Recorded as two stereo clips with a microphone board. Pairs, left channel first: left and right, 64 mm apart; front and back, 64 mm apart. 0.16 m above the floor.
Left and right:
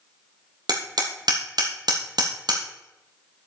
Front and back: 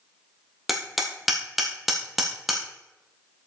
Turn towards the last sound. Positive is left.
turn(degrees=-90)